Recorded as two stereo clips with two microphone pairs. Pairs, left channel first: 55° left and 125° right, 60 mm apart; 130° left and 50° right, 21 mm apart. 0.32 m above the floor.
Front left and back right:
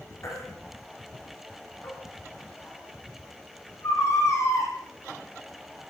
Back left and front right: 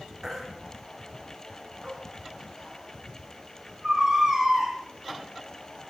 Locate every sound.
0.2 s a baby crying: 20° left, 9.5 m